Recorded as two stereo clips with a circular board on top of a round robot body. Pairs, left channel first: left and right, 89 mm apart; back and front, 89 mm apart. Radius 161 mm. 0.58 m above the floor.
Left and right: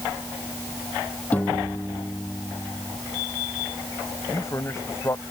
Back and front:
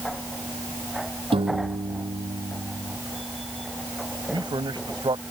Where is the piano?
15° left.